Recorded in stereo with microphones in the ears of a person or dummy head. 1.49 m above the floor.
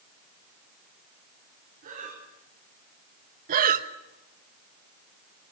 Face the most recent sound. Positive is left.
turn(degrees=-45)  # may be behind; listen again after turning